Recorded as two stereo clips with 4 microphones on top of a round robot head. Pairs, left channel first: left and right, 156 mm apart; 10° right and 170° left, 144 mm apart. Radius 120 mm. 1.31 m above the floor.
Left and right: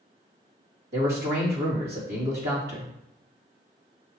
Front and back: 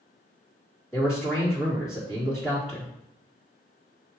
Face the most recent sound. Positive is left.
turn(degrees=-105)